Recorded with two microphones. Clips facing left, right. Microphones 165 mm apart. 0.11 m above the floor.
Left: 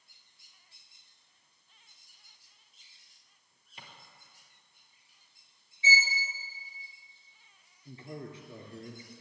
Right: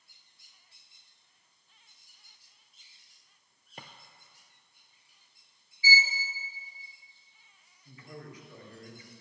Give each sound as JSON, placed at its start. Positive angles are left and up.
{"t": 3.8, "sound": "a drawer", "side_deg": -50, "distance_m": 0.9}
{"t": 5.8, "sound": "a violin", "side_deg": 25, "distance_m": 1.5}
{"t": 7.8, "sound": "a man speaking", "side_deg": 30, "distance_m": 1.8}